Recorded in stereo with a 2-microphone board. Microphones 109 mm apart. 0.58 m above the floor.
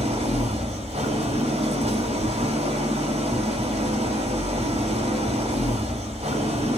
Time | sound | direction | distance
0.0 | an engine running | 75° right (ahead or behind) | 2.0 m